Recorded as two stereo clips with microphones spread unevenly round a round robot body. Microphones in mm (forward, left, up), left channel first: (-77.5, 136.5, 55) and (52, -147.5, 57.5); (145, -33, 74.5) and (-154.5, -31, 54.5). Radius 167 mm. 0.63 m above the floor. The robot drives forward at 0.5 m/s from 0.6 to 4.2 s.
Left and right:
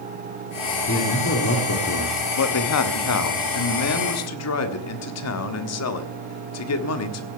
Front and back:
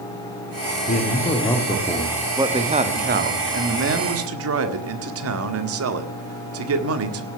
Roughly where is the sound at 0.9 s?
Ahead left.